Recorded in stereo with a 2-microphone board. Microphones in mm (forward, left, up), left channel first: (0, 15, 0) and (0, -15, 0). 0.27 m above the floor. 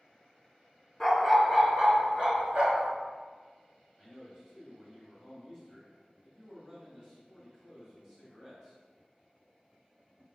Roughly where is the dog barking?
Centre.